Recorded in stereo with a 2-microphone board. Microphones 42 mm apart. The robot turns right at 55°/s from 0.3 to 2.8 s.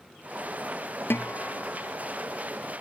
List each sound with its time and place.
1.1 s a guitar: 100° left; by 2.0 s 150° left